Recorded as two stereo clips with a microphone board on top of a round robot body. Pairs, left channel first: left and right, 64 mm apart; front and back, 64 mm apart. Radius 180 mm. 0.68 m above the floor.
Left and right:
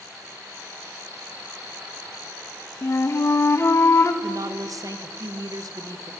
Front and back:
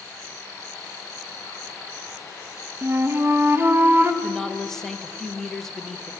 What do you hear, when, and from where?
2.8 s a flute: 130° left, 0.9 m
4.2 s a woman speaking: 80° right, 0.9 m